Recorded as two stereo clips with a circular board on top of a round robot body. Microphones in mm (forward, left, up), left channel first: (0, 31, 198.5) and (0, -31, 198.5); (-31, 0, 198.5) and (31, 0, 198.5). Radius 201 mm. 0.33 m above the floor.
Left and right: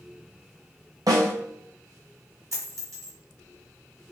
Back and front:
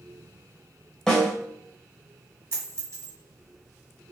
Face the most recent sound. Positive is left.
turn(degrees=-50)